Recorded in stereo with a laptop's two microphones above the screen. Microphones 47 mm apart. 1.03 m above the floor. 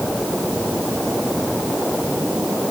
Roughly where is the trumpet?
I don't hear a trumpet.